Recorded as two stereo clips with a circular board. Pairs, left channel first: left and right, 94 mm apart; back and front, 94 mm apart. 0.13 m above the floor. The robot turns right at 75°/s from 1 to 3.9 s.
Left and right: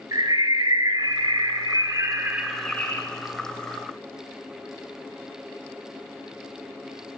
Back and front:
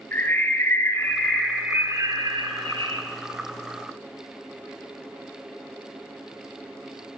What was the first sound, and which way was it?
A bird, 120° right.